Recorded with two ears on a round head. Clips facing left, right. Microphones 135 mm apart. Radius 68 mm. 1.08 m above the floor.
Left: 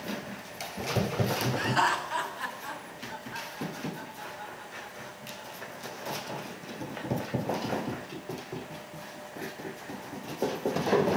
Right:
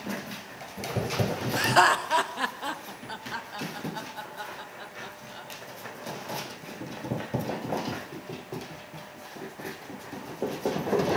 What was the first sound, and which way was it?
Laughter, 55° right (ahead or behind).